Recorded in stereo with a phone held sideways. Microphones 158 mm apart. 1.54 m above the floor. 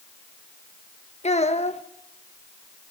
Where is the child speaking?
45° left (ahead or behind), 1.2 m.